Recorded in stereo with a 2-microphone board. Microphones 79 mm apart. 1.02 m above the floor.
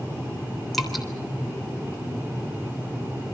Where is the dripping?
Centre (ahead or behind), 3.5 m.